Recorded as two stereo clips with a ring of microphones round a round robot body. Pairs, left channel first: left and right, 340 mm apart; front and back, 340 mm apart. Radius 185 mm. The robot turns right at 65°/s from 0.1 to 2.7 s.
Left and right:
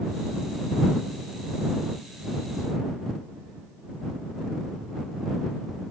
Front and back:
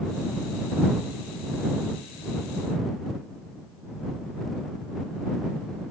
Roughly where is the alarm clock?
No alarm clock in this recording.